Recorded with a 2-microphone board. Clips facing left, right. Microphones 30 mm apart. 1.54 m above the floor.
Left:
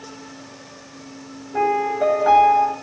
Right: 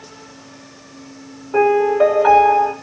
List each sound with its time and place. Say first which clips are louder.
1.5 s a piano: right 6 dB; 85° right, 7 m